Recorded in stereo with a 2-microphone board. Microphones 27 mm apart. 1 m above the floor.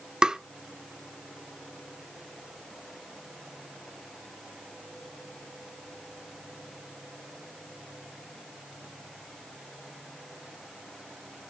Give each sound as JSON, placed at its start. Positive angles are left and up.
{"t": 0.2, "sound": "tapping", "side_deg": -25, "distance_m": 0.6}